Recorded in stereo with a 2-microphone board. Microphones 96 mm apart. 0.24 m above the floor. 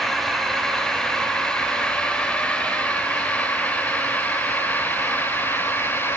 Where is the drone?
5° left (ahead or behind); by 6.2 s 20° left (ahead or behind).